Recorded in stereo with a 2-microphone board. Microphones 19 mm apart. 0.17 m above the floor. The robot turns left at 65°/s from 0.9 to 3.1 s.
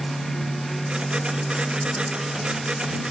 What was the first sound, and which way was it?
Only background noise.